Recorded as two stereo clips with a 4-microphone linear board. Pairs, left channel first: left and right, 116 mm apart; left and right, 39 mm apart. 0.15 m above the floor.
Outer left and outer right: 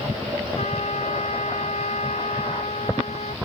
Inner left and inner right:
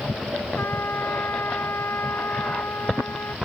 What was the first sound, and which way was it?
A trumpet, 75° left (ahead or behind).